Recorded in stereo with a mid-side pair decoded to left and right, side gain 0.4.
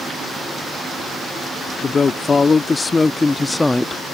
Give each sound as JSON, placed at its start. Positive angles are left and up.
{"t": 1.8, "sound": "a woman speaking", "azimuth_deg": 45}